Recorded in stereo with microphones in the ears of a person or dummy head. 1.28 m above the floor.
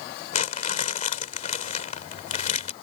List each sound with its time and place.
0.3 s crumpling: 45° left (ahead or behind)